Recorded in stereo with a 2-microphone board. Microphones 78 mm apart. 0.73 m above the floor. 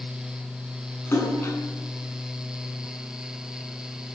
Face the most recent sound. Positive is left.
turn(degrees=30)  # may be behind; listen again after turning